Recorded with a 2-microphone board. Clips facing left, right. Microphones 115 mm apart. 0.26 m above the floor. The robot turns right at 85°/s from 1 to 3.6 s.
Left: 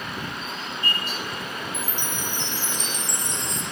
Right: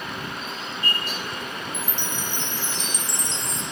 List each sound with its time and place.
1.7 s a chime: 120° right, 2.5 m; by 3.6 s 40° left, 2.5 m